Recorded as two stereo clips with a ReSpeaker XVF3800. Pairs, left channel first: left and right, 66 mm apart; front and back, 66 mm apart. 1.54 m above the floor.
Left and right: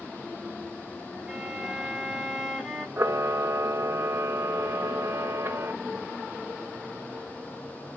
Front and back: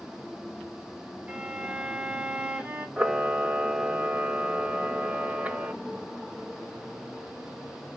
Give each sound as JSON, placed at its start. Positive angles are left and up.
{"t": 1.3, "sound": "a violin", "azimuth_deg": 170, "distance_m": 1.1}
{"t": 3.0, "sound": "a camera shutter", "azimuth_deg": -120, "distance_m": 0.6}